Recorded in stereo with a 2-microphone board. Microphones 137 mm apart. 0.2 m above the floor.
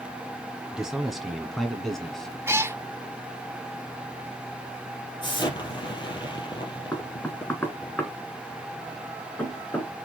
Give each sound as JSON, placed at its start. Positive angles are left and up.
{"t": 0.7, "sound": "a man speaking", "side_deg": -5, "distance_m": 1.8}
{"t": 2.5, "sound": "a cat meowing", "side_deg": -20, "distance_m": 0.6}
{"t": 5.2, "sound": "an explosion", "side_deg": 35, "distance_m": 2.5}
{"t": 6.9, "sound": "knocking", "side_deg": 15, "distance_m": 2.0}